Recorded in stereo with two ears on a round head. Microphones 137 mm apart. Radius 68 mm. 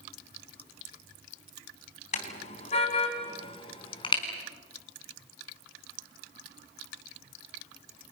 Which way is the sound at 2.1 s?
50° left (ahead or behind).